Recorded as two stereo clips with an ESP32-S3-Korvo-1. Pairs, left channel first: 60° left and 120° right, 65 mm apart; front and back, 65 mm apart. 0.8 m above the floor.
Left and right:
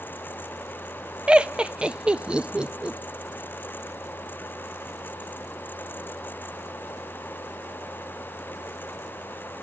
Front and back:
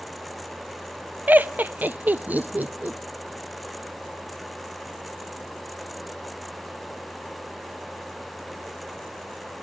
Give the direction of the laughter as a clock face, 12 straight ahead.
6 o'clock.